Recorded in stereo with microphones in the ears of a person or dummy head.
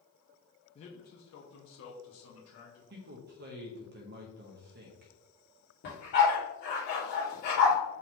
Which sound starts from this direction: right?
A man speaking, at 2.9 s.